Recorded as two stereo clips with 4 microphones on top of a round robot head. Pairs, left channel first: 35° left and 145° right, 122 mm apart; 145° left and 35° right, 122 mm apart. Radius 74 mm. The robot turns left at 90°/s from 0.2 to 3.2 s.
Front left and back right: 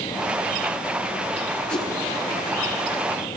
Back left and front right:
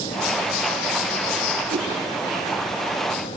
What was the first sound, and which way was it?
A whoosh, 45° right.